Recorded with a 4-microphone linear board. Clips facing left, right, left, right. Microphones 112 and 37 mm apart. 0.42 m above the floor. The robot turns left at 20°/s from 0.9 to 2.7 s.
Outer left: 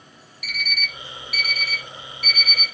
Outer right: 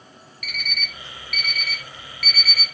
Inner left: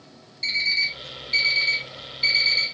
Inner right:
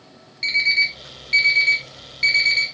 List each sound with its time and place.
0.4 s an alarm clock: 60° right (ahead or behind), 1.1 m; by 2.6 s 70° right (ahead or behind), 1.1 m